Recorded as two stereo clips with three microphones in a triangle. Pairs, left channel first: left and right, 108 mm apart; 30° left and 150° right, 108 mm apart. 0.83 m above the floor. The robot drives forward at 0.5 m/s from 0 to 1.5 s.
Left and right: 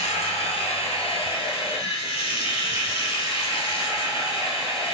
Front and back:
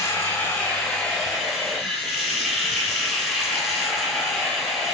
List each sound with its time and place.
0.0 s running water: 95° left, 1.3 m; by 5.0 s 125° left, 1.5 m